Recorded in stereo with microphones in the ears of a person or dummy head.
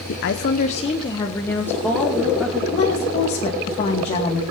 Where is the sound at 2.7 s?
30° left (ahead or behind), 2.5 m.